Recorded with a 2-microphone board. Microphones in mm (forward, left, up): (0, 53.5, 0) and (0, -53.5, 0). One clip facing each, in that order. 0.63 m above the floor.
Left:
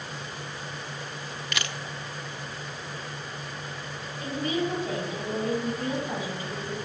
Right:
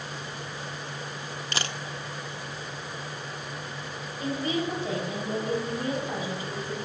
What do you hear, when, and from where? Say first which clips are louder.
1.5 s a camera shutter: right 1 dB; 30° right (ahead or behind), 0.6 m
4.2 s a woman speaking: even; 25° right (ahead or behind), 5 m